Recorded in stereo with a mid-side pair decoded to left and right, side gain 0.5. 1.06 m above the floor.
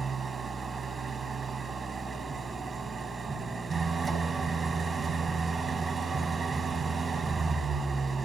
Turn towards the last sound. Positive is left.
turn(degrees=-30)